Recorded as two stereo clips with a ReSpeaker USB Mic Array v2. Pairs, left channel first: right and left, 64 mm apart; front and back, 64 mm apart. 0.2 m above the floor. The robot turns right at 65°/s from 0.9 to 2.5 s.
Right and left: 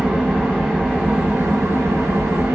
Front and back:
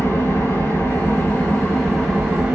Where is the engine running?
10° left, 1.5 m; by 2.5 s 115° left, 1.5 m.